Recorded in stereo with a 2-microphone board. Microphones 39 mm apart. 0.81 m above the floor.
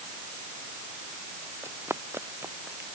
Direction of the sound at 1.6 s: 80° right.